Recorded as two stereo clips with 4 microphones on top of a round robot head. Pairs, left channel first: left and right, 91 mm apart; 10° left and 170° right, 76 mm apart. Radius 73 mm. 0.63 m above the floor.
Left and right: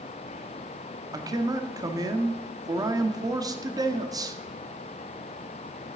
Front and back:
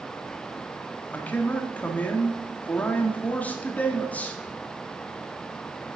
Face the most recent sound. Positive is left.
turn(degrees=-55)